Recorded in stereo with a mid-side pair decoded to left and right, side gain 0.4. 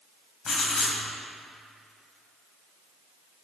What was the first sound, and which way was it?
Writing, 60° left.